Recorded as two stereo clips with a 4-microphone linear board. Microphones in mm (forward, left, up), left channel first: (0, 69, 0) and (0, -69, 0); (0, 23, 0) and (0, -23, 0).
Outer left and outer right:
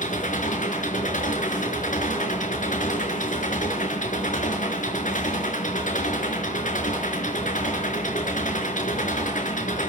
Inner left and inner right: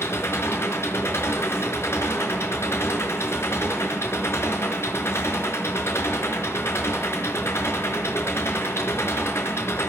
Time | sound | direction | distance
0.0 | an engine running | 65° left (ahead or behind) | 5 m